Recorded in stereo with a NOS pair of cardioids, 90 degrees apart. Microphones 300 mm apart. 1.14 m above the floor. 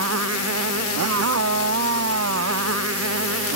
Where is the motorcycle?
55° right; by 3.6 s 50° right.